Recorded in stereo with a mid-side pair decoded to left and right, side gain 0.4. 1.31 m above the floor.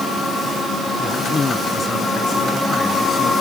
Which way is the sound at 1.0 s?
40° left.